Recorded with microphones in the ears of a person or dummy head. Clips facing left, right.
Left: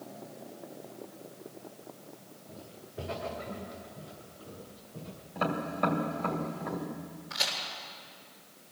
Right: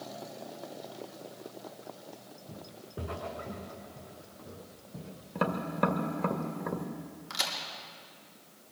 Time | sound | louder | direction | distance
2.5 | footsteps | right 2 dB | 60° right (ahead or behind) | 6.5 m
5.3 | tapping | right 1 dB | 65° right (ahead or behind) | 2 m
7.3 | a crack | left 1 dB | 75° right (ahead or behind) | 5 m